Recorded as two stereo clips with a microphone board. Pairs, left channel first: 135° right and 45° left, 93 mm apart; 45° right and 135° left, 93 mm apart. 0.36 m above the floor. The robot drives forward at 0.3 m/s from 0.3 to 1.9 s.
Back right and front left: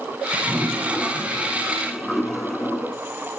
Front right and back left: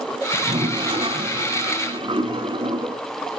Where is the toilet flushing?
110° left, 0.9 m; by 3.0 s 135° left, 1.1 m.